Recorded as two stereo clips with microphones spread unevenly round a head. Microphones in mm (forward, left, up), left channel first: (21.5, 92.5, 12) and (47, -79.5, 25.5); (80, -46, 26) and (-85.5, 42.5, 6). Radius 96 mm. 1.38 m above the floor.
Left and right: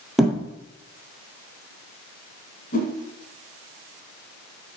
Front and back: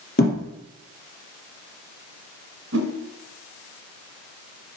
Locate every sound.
0.2 s a thud: 5° left, 3 m
2.7 s a whoosh: 140° left, 1.9 m